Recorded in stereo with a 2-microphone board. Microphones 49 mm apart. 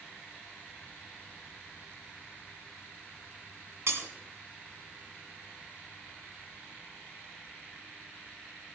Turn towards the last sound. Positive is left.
turn(degrees=-65)  # may be behind; listen again after turning